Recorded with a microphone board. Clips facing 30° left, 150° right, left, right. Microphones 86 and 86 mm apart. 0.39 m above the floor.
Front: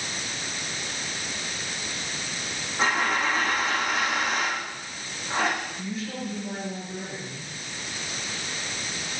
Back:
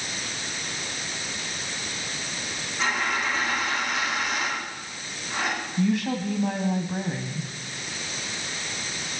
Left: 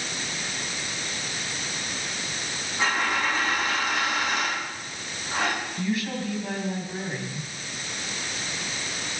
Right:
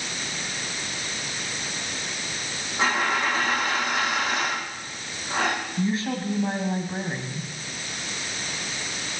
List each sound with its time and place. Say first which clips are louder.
2.8 s a dropped coin: front 2 dB, right 2 dB; 25° right, 9.5 m
5.8 s a woman speaking: back 8 dB, right 4 dB; 150° right, 2.5 m